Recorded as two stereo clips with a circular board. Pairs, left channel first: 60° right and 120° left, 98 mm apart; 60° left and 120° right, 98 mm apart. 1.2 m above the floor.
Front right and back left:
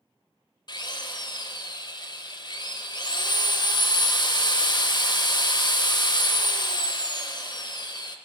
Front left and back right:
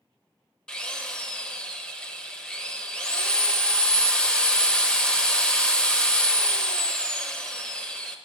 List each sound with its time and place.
0.7 s a drill: 20° right, 0.5 m